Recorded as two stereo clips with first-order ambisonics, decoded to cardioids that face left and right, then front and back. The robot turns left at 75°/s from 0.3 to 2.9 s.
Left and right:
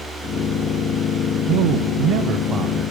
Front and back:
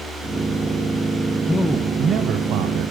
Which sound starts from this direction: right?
A man speaking, at 1.5 s.